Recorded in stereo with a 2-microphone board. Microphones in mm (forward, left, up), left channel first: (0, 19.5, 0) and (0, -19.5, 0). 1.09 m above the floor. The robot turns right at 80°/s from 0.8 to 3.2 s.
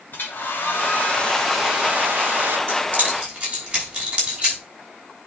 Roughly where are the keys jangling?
Right.